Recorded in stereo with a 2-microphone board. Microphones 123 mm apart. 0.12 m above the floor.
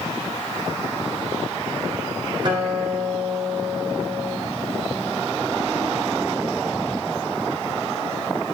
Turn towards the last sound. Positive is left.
turn(degrees=-40)  # may be behind; listen again after turning